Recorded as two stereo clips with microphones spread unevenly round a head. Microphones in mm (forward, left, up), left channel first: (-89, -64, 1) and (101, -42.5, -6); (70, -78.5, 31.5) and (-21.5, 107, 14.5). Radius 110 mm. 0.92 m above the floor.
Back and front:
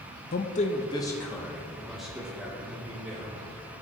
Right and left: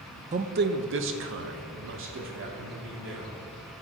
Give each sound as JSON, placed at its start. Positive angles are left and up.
{"t": 0.3, "sound": "a man speaking", "azimuth_deg": 160, "distance_m": 0.6}